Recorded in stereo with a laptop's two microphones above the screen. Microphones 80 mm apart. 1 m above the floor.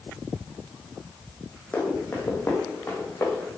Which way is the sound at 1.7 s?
20° left (ahead or behind).